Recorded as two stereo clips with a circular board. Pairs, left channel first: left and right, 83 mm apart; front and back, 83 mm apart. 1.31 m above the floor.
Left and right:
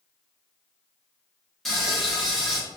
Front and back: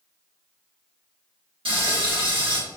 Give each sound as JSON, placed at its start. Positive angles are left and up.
{"t": 1.6, "sound": "frying", "azimuth_deg": 180, "distance_m": 1.2}